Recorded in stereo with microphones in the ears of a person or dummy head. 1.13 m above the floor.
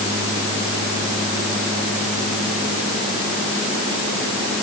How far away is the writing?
I don't hear writing.